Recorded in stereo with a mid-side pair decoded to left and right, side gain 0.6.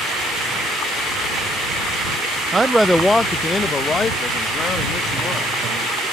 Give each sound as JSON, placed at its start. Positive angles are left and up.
{"t": 2.5, "sound": "a man speaking", "azimuth_deg": -20}